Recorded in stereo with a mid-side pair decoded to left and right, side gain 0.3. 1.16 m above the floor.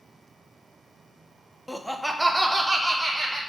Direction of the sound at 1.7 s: 10° left.